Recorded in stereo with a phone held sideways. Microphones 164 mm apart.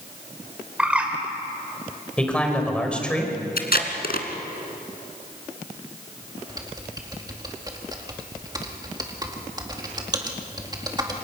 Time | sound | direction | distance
0.8 | a bird | 5° right (ahead or behind) | 3 m
2.2 | a man speaking | 5° left (ahead or behind) | 4 m
3.6 | tape being pulled | 70° left (ahead or behind) | 2 m
6.5 | typing on a keyboard | 25° right (ahead or behind) | 2 m